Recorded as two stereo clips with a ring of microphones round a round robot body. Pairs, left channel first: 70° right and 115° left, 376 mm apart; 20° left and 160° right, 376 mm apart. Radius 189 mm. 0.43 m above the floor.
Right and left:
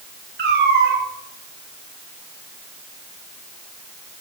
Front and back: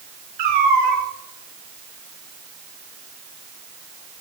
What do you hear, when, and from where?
0.4 s a cat meowing: 175° left, 3 m